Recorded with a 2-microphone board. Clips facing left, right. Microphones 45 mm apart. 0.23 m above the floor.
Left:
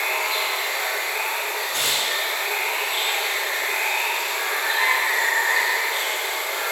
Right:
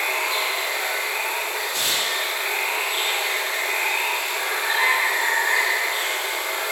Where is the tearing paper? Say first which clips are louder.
Left 1 dB; 65° left (ahead or behind), 3 m.